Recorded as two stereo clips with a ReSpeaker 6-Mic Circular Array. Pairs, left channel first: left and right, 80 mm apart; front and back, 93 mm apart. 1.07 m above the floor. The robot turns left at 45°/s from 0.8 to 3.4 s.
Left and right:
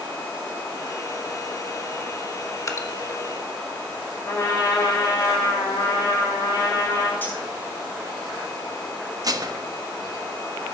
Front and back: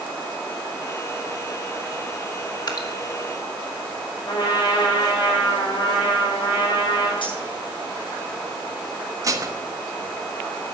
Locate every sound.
2.7 s dripping: 40° left, 1.6 m; by 2.9 s 30° left, 1.6 m
4.2 s a trumpet: 40° left, 5 m
7.2 s cutlery clinking: 25° left, 8 m
9.2 s dishes clattering: 130° right, 1.0 m